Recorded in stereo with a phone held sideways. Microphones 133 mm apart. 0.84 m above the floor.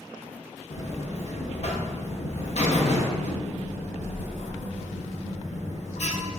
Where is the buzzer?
55° left (ahead or behind), 0.6 m.